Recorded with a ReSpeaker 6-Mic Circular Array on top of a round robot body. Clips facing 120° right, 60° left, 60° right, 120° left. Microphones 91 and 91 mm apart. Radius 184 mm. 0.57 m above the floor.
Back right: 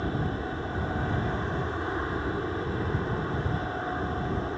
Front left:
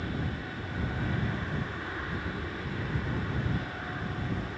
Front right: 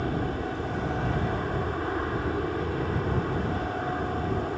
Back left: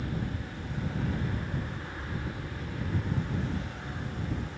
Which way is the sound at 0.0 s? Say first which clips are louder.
Back right 5 dB, front right 7 dB; 70° right.